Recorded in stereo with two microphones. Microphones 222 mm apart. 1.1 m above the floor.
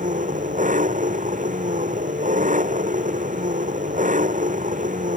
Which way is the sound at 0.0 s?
35° right (ahead or behind).